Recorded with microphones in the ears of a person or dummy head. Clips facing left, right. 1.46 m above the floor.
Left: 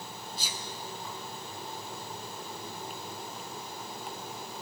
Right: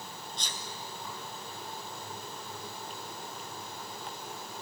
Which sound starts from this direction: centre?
A sneeze, at 0.4 s.